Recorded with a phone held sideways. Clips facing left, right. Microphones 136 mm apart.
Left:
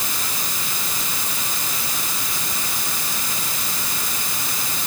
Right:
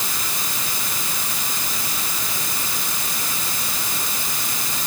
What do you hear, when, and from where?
Only background noise.